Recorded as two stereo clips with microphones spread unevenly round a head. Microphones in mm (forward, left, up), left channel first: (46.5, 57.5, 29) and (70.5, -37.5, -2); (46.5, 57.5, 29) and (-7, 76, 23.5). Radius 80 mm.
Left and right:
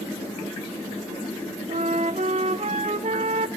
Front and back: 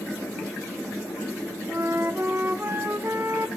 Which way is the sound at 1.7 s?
125° right.